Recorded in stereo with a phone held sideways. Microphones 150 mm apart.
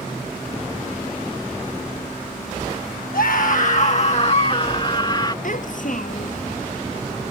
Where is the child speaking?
60° left (ahead or behind).